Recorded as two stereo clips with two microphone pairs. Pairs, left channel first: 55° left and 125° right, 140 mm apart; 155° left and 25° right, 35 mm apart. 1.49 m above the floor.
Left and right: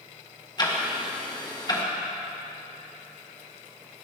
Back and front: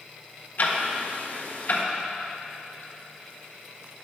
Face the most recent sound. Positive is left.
turn(degrees=120)